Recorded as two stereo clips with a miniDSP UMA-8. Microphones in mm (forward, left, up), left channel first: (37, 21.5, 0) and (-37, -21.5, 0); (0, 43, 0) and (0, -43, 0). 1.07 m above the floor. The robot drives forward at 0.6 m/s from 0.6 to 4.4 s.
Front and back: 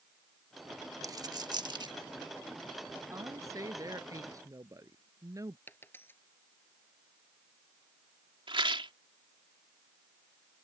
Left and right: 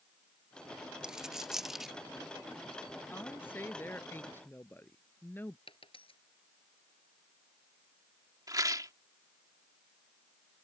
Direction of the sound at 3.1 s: 160° left.